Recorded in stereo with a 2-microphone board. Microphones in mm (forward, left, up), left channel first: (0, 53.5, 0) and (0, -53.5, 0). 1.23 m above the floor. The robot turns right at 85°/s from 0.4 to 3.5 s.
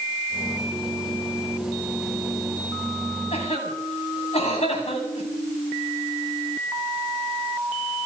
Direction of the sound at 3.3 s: 75° left (ahead or behind).